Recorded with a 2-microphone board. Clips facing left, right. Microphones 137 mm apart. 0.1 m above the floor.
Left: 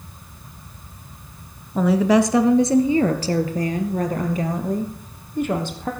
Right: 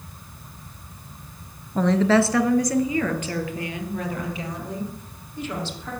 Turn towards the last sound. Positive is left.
turn(degrees=55)  # may be behind; listen again after turning